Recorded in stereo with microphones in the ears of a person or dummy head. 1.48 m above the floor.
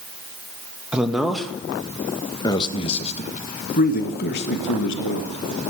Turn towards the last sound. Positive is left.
turn(degrees=70)  # may be behind; listen again after turning